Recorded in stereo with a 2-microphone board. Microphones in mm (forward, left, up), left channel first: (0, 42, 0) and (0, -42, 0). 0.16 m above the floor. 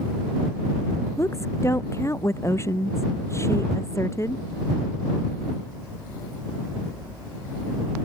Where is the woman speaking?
35° left (ahead or behind).